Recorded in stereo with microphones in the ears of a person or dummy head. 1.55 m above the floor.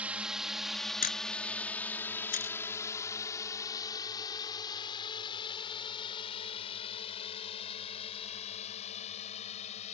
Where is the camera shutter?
45° left (ahead or behind).